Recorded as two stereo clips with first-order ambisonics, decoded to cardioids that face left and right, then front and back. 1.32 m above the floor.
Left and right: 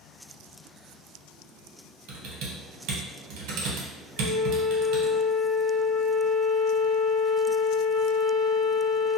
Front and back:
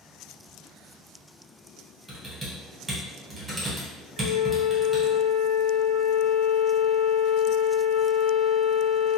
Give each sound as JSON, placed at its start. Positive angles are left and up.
{"t": 2.1, "sound": "typing on a keyboard", "azimuth_deg": -105, "distance_m": 0.9}
{"t": 4.2, "sound": "a flute", "azimuth_deg": -15, "distance_m": 0.9}